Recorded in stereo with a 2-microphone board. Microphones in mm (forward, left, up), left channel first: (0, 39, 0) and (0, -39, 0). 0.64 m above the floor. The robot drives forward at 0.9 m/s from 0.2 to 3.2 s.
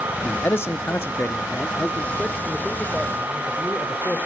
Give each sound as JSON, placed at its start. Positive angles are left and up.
{"t": 0.2, "sound": "a man speaking", "side_deg": 25, "distance_m": 0.8}